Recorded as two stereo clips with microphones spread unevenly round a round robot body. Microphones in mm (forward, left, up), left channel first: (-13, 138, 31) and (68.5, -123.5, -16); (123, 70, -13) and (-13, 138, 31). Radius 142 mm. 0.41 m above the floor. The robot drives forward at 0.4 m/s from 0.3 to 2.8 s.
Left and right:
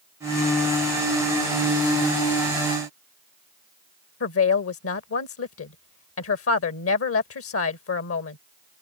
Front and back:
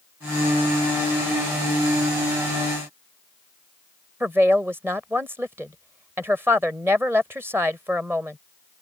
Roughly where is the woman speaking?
Left.